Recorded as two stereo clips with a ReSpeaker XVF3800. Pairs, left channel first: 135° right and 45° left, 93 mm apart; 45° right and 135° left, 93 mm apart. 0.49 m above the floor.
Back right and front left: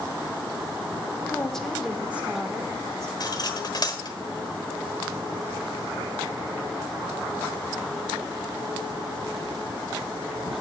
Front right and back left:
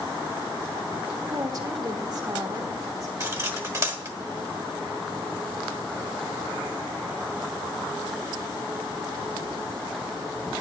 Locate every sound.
1.3 s a woman speaking: 160° left, 1.0 m; by 3.1 s 95° left, 1.4 m
3.2 s cutlery clinking: 175° right, 1.1 m